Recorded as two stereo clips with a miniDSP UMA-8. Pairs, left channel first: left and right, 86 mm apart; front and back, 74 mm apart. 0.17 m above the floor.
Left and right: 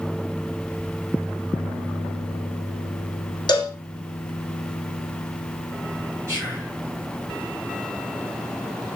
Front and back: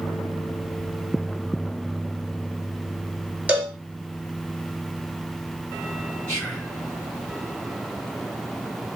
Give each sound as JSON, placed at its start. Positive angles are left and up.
{"t": 3.5, "sound": "a cowbell", "azimuth_deg": 110, "distance_m": 0.8}
{"t": 6.3, "sound": "whispering", "azimuth_deg": -65, "distance_m": 1.8}